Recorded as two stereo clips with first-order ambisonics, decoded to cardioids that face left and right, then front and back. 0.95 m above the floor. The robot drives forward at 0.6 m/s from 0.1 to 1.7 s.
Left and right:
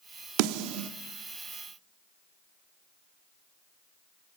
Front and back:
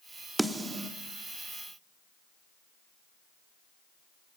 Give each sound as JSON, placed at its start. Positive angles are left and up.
{"t": 0.4, "sound": "a snare drum", "azimuth_deg": -95, "distance_m": 1.2}